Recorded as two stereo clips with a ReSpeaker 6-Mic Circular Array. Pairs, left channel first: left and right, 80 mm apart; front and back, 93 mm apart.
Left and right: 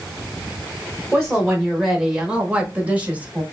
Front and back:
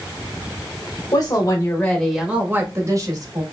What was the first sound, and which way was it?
A woman speaking, 5° left.